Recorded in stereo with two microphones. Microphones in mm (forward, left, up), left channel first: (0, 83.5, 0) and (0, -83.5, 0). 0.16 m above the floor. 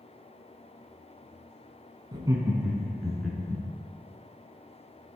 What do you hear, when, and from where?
2.1 s laughter: 30° right (ahead or behind), 1.1 m; by 3.6 s 10° left (ahead or behind), 1.9 m